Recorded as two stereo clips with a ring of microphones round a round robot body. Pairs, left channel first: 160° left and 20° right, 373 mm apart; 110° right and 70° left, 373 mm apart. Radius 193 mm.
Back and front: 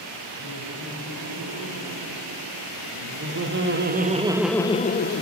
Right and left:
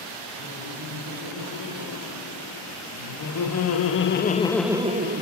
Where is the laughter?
70° right, 4.5 m; by 5.2 s 115° left, 1.0 m.